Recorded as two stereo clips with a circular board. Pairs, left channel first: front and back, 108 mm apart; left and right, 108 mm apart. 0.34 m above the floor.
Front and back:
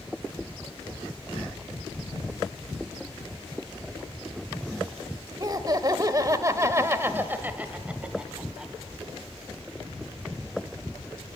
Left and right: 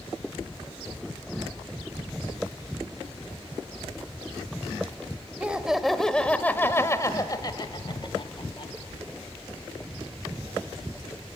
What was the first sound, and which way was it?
Laughter, 160° right.